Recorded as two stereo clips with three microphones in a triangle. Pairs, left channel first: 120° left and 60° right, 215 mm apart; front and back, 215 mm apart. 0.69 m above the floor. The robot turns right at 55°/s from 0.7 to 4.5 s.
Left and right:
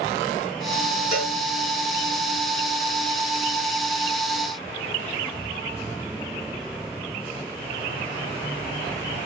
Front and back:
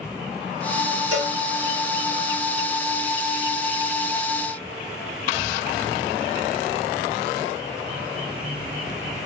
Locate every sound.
1.1 s a cowbell: 25° left, 2.5 m; by 1.4 s 40° left, 2.5 m